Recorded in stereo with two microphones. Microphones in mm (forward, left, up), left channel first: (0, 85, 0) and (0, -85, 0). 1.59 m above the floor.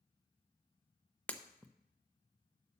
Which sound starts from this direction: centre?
Breaking glass, at 1.3 s.